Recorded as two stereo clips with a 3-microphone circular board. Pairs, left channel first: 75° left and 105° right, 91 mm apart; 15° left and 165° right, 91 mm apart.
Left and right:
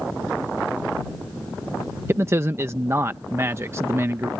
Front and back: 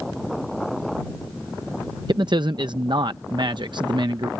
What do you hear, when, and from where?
2.1 s a man speaking: 160° right